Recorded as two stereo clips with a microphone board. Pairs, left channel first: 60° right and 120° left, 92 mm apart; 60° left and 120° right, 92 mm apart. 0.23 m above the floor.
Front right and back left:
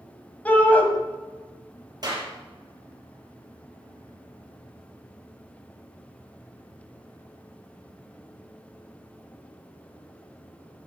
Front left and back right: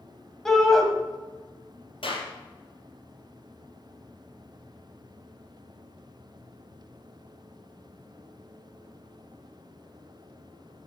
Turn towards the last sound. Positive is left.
turn(degrees=75)